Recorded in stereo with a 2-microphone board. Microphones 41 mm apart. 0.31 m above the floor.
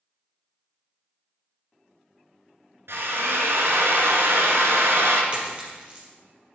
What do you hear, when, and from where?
2.9 s a drill: 80° right, 1.9 m
5.3 s a dropped coin: 25° right (ahead or behind), 4 m